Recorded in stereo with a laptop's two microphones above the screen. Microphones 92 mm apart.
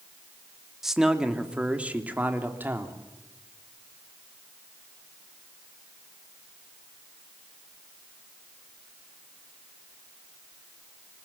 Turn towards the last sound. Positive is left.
turn(degrees=-25)  # may be behind; listen again after turning